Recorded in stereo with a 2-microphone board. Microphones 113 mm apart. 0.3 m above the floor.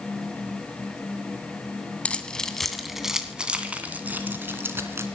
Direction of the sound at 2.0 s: 10° left (ahead or behind).